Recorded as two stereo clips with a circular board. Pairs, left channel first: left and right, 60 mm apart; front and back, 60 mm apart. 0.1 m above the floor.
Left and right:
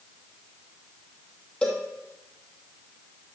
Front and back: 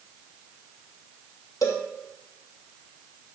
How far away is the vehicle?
I don't hear a vehicle.